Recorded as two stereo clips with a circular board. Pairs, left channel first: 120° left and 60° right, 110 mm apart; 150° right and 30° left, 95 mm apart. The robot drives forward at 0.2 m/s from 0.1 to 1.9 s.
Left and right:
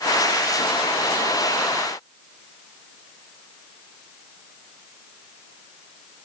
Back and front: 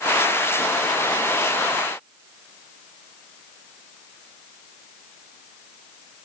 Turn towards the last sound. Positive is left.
No sound to turn to.